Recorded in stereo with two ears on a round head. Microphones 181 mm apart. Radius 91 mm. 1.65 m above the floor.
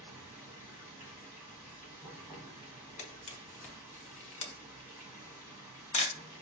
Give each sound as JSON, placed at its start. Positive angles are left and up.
{"t": 0.0, "sound": "running water", "side_deg": -15, "distance_m": 1.2}
{"t": 3.0, "sound": "a camera shutter", "side_deg": 35, "distance_m": 0.8}